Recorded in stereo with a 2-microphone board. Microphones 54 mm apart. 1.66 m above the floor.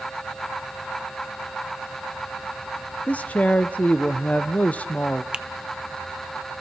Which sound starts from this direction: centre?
A finger snap, at 5.3 s.